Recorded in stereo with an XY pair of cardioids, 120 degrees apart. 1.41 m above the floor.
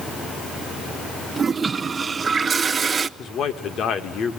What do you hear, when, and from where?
1.4 s a toilet flushing: 30° right, 0.6 m
3.2 s a man speaking: 55° left, 1.9 m